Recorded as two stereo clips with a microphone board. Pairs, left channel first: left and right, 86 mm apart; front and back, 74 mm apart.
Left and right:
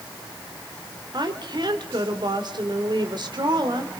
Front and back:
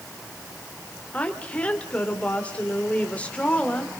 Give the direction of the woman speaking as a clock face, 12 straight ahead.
2 o'clock.